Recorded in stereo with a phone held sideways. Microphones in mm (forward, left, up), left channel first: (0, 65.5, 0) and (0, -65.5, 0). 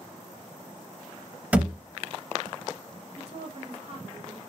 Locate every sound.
1.5 s a thud: 10° right (ahead or behind), 0.6 m
3.2 s a woman speaking: 45° right (ahead or behind), 1.1 m